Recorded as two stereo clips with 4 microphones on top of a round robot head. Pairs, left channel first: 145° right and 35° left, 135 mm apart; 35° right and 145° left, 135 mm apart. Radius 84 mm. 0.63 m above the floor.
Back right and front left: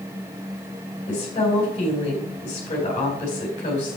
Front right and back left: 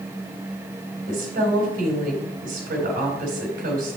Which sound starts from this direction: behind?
A woman speaking, at 1.1 s.